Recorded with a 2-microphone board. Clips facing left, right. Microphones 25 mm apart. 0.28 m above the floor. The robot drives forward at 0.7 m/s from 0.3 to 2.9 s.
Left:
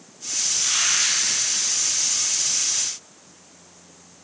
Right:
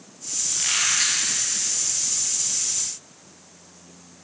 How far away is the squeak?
About 4.5 m.